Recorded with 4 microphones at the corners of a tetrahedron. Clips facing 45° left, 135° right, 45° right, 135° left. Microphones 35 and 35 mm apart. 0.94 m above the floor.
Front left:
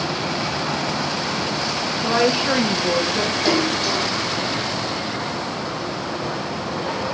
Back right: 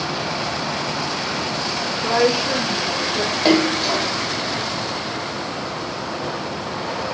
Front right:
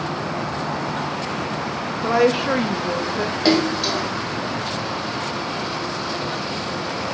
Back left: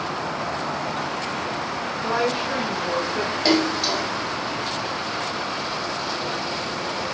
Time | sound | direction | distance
2.0 | a woman speaking | 50° right | 1.1 m
3.5 | a splash | 120° right | 0.9 m